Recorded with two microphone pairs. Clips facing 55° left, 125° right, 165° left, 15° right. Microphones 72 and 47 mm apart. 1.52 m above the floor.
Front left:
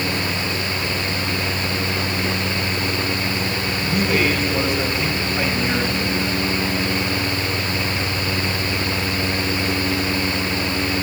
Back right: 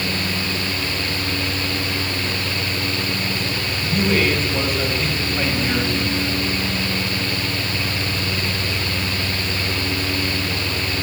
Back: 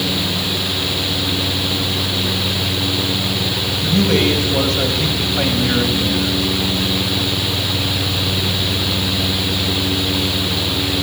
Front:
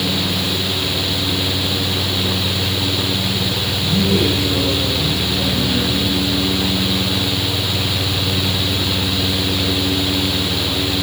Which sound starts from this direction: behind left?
A man speaking, at 3.8 s.